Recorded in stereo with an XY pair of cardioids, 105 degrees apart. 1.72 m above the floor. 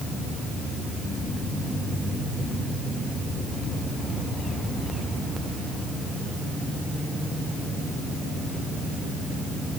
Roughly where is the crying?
No crying in this recording.